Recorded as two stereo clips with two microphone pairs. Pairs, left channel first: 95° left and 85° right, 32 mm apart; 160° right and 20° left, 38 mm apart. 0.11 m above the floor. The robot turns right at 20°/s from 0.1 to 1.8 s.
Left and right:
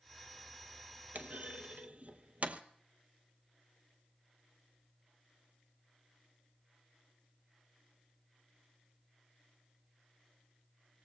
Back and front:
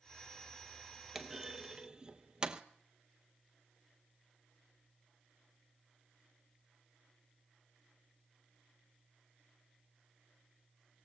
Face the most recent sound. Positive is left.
turn(degrees=-50)